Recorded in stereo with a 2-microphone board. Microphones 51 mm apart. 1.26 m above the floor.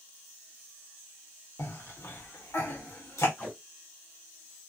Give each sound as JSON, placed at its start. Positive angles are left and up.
{"t": 1.6, "sound": "a cough", "side_deg": 70, "distance_m": 0.9}
{"t": 3.4, "sound": "tape being pulled", "side_deg": 50, "distance_m": 1.6}